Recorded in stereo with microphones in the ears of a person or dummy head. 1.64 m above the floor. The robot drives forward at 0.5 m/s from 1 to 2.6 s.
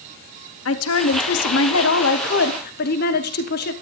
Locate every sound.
0.7 s a woman speaking: 85° left, 1.2 m; by 3.7 s 60° left (ahead or behind), 1.4 m